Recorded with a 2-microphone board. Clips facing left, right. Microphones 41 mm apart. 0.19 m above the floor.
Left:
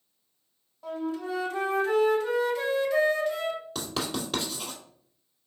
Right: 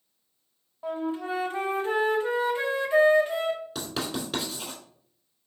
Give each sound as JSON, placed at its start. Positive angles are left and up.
{"t": 0.8, "sound": "a flute", "side_deg": -25, "distance_m": 0.9}
{"t": 3.8, "sound": "writing", "side_deg": -5, "distance_m": 2.5}